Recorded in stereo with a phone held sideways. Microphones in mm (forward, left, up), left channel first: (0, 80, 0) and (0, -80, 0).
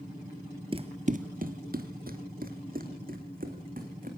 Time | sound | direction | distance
0.7 | running footsteps | 35° right (ahead or behind) | 1.1 m